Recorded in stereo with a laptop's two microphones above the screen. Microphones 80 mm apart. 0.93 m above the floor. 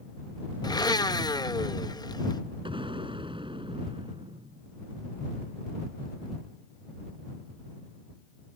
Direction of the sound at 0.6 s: 50° left (ahead or behind).